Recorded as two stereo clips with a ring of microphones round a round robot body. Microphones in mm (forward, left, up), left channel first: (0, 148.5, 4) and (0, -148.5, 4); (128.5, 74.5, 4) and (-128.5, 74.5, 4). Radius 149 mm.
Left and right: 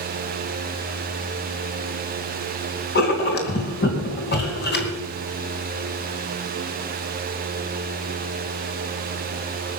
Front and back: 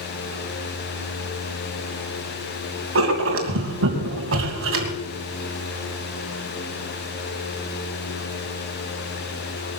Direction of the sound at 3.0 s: 145° left.